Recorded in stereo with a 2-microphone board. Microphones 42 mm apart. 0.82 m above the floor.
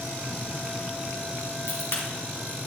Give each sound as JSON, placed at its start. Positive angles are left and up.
{"t": 1.7, "sound": "a crack", "side_deg": 65, "distance_m": 4.0}